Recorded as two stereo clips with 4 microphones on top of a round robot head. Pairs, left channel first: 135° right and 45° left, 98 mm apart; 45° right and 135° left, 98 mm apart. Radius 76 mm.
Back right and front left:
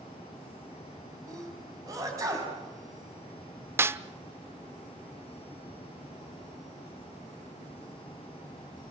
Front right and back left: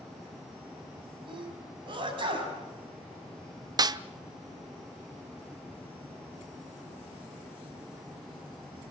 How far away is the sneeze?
About 4.5 m.